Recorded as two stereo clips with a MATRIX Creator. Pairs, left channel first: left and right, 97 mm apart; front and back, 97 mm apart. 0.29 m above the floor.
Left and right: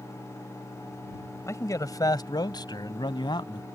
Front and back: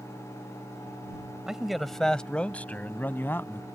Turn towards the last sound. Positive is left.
turn(degrees=65)